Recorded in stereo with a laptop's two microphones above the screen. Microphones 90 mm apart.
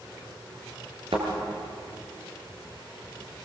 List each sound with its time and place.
1.1 s a thud: 80° right, 5 m